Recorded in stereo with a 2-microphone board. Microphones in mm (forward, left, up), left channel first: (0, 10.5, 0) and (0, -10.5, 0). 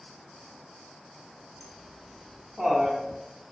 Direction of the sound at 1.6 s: 5° left (ahead or behind).